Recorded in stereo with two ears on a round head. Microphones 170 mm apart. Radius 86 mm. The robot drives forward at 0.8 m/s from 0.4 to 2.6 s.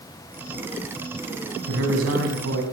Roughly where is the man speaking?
Right.